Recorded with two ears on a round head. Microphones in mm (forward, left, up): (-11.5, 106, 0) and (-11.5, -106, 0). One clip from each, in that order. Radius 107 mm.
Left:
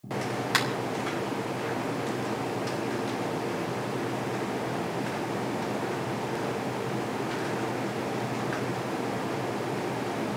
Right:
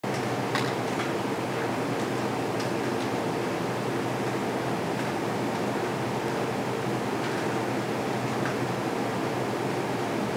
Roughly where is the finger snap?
Left.